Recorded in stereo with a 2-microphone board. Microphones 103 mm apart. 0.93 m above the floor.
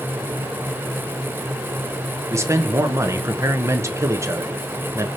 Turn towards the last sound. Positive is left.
turn(degrees=-30)  # may be behind; listen again after turning